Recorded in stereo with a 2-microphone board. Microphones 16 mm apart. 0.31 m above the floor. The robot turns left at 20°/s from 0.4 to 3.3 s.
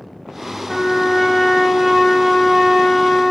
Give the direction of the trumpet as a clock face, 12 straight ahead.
5 o'clock.